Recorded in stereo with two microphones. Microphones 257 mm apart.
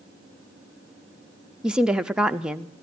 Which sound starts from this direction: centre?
A woman speaking, at 1.6 s.